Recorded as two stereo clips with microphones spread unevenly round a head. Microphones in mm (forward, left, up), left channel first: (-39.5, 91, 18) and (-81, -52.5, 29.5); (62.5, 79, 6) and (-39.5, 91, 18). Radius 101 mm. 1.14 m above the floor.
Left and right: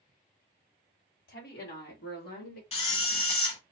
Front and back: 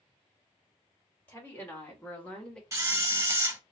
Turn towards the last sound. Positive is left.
turn(degrees=120)